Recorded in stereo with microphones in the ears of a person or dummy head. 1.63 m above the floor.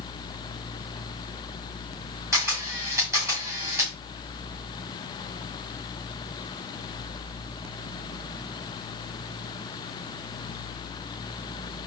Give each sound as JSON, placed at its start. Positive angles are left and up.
{"t": 2.3, "sound": "a camera shutter", "side_deg": -10, "distance_m": 1.6}